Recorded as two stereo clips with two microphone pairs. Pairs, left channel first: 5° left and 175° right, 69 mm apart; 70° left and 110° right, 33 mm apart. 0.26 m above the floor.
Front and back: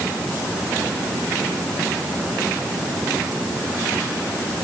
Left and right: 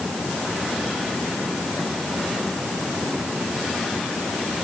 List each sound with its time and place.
Only background noise.